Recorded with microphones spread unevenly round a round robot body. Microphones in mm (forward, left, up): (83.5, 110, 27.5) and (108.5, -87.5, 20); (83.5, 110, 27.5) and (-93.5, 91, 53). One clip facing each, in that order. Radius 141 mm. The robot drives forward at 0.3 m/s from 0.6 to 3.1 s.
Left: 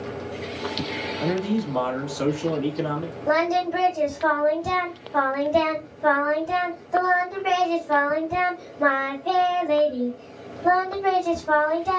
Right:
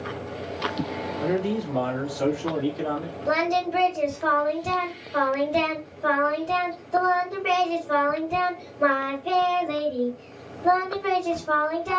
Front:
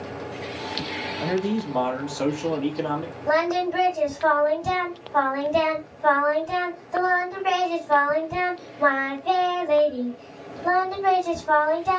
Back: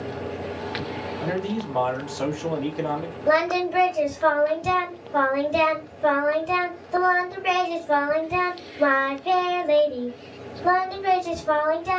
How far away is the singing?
About 1.4 m.